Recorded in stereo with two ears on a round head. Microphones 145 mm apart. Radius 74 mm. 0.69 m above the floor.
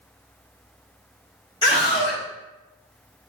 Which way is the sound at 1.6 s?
30° left (ahead or behind).